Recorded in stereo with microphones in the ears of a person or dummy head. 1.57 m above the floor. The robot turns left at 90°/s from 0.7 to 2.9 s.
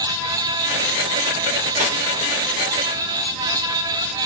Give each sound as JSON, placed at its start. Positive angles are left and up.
{"t": 1.8, "sound": "cutlery clinking", "side_deg": -40, "distance_m": 1.0}